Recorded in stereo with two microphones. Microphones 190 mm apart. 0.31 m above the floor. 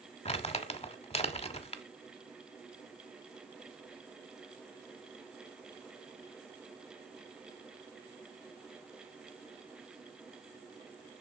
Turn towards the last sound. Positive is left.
turn(degrees=35)  # may be behind; listen again after turning